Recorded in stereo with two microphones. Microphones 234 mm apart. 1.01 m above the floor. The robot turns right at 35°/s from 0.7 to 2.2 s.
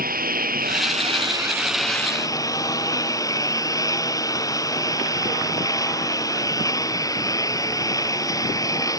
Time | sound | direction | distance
0.0 | a lawn mower | 40° right | ?